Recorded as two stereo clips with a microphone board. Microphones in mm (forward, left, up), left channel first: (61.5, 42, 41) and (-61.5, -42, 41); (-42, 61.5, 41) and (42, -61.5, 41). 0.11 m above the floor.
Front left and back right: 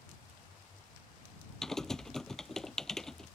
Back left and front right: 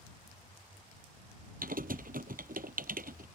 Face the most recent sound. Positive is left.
turn(degrees=-50)